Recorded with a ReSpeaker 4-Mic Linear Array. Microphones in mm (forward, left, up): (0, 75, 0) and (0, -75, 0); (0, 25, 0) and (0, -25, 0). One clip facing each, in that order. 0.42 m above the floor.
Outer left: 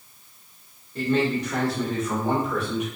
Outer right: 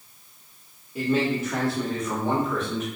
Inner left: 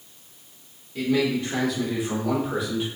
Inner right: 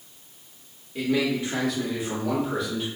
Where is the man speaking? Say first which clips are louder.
Outer left 1 dB, inner left 1 dB; 10° right (ahead or behind), 1.0 m; by 2.9 s 15° left (ahead or behind), 1.2 m.